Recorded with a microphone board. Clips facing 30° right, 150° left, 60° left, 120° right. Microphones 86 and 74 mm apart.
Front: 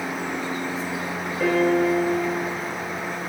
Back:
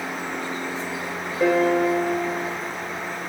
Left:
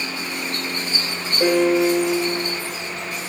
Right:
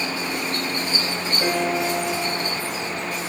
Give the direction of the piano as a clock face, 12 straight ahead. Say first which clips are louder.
Back 1 dB, left 7 dB; 10 o'clock.